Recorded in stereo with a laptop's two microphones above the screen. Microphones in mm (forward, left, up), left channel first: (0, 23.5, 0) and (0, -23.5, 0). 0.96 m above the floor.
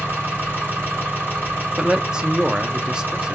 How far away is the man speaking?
About 0.5 m.